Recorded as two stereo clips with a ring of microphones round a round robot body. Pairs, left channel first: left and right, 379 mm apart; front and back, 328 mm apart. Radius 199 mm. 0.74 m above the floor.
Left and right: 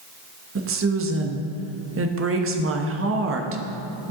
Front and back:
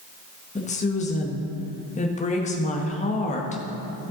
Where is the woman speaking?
55° right, 1.1 m.